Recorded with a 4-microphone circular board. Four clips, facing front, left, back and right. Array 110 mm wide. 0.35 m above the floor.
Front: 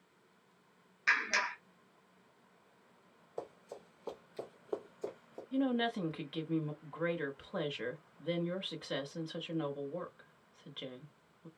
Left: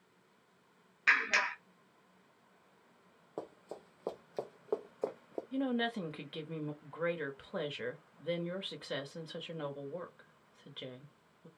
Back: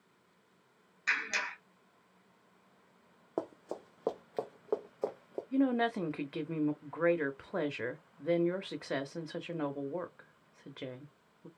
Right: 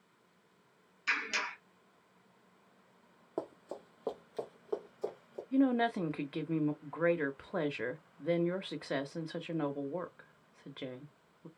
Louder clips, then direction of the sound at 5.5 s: Right 6 dB, back 3 dB; 140° right.